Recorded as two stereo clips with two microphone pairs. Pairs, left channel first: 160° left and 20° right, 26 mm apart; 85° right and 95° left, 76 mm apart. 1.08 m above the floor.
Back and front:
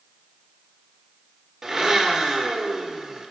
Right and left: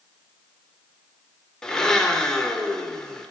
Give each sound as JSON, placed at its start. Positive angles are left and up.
{"t": 1.6, "sound": "a blender", "azimuth_deg": -35, "distance_m": 0.7}